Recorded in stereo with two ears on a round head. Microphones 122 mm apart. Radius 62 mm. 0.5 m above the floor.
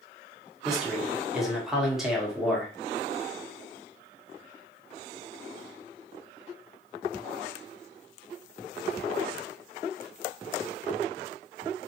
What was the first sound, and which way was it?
A man speaking, 5° right (ahead or behind).